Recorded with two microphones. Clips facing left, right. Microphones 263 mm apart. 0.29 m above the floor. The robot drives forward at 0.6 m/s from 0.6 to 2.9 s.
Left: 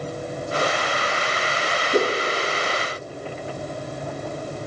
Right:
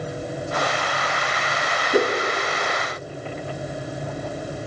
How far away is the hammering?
I don't hear hammering.